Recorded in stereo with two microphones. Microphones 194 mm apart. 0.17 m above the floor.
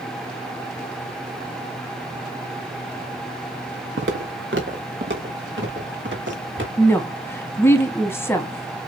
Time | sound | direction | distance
4.0 | footsteps | 85° right | 1.2 m
6.8 | a woman speaking | 15° left (ahead or behind) | 1.2 m